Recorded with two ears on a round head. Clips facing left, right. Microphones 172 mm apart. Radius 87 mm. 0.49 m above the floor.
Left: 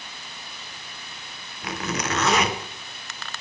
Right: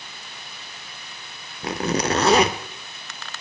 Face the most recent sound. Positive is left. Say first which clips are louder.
# right 6 dB
turn(degrees=-30)  # may be behind; listen again after turning